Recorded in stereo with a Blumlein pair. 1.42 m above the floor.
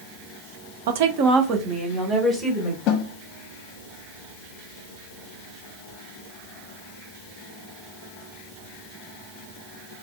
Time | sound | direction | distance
0.9 | a woman speaking | 55° right | 0.6 m
2.9 | a snare drum | 40° left | 0.8 m